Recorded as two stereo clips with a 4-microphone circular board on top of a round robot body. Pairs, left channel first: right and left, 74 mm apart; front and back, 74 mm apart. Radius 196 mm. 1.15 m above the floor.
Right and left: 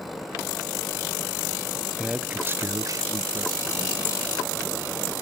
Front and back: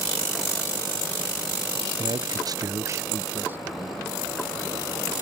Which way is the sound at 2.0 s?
Straight behind.